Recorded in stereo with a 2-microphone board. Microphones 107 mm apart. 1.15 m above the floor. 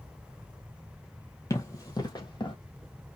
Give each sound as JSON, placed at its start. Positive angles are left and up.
{"t": 1.5, "sound": "running footsteps", "side_deg": 30, "distance_m": 1.9}